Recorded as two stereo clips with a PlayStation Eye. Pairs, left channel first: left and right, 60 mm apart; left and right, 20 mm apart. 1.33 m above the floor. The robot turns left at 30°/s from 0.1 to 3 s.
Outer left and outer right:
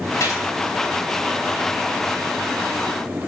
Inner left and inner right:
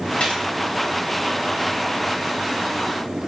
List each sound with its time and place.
0.2 s a gunshot: 65° left (ahead or behind), 3 m; by 0.4 s 55° left (ahead or behind), 3 m